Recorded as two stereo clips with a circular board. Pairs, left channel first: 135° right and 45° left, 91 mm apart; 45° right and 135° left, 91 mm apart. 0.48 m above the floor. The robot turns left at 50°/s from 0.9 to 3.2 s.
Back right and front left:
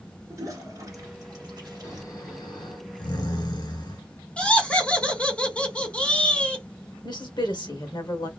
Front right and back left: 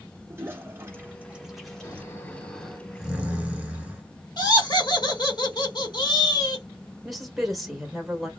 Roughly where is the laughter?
Ahead right.